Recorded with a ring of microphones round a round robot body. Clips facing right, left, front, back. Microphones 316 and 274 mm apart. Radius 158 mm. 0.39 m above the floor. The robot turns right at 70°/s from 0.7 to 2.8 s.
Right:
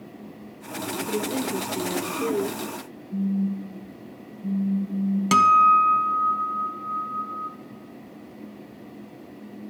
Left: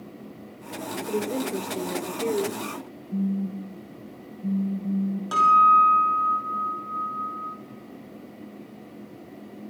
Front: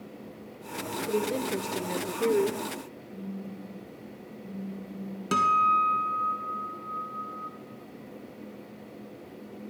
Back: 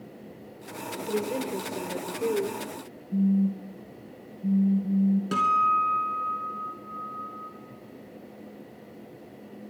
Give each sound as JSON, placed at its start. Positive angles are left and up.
{"t": 1.1, "sound": "a woman speaking", "azimuth_deg": -75, "distance_m": 0.9}
{"t": 3.1, "sound": "a phone buzzing", "azimuth_deg": 155, "distance_m": 3.5}
{"t": 5.3, "sound": "a guitar", "azimuth_deg": -80, "distance_m": 0.9}